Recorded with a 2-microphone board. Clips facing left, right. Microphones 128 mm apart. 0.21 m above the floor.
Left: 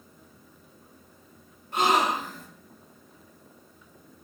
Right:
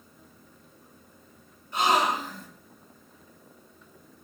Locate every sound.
1.7 s a gasp: 50° left (ahead or behind), 0.6 m